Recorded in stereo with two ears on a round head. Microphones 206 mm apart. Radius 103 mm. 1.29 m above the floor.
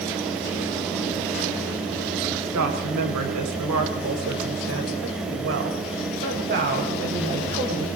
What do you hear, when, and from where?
2.5 s a woman speaking: 80° right, 6 m; by 7.9 s 35° right (ahead or behind), 6.5 m